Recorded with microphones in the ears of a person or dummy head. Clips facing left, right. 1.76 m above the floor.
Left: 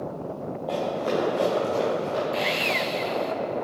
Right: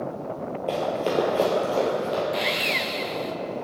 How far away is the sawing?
About 0.6 m.